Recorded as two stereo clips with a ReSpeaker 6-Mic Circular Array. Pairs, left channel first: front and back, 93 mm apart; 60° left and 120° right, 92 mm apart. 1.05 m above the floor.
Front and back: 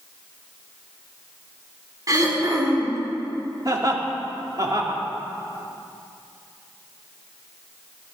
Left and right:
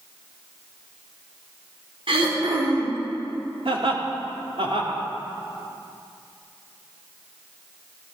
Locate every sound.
2.1 s throat clearing: 130° right, 3 m
3.6 s laughter: 130° right, 3 m